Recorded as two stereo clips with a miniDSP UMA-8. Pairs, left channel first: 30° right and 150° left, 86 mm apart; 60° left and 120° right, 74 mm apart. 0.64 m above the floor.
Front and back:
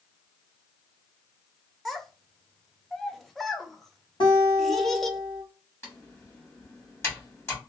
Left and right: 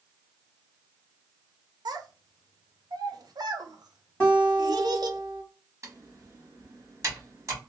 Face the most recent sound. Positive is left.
turn(degrees=-85)